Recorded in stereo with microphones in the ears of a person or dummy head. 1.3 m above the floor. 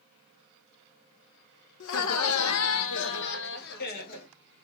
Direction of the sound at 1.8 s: 55° left (ahead or behind).